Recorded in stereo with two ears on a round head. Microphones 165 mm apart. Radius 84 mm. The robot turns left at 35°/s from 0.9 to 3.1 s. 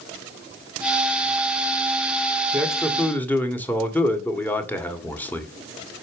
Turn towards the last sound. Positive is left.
turn(degrees=10)  # may be behind; listen again after turning